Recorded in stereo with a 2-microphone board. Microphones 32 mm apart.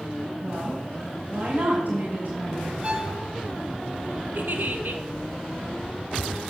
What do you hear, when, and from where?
0.4 s a woman speaking: 40° right (ahead or behind), 3.5 m; by 2.7 s 50° right (ahead or behind), 2.5 m
2.8 s a violin: 35° right (ahead or behind), 1.5 m
4.3 s a giggle: 70° right (ahead or behind), 1.1 m